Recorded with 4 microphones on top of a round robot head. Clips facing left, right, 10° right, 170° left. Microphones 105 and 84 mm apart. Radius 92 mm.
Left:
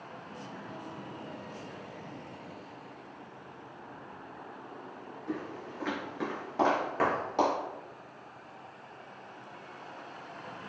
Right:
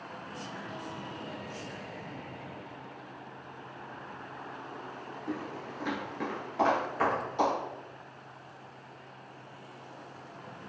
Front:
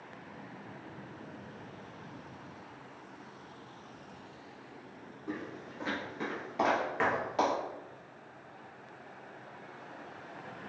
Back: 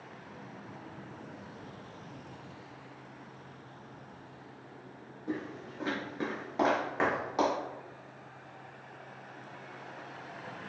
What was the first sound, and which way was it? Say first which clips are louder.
Footsteps: even, back 3 dB; 120° right.